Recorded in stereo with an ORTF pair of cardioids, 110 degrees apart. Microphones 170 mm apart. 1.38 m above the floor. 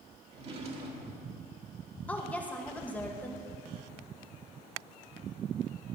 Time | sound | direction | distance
0.3 | a drawer | 40° right | 1.8 m
2.1 | a woman speaking | 10° left | 1.4 m